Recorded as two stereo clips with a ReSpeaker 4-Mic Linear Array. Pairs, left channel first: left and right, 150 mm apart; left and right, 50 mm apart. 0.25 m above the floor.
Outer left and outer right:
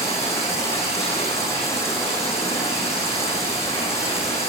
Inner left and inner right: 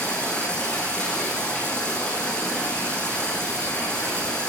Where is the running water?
20° left (ahead or behind), 8.5 m.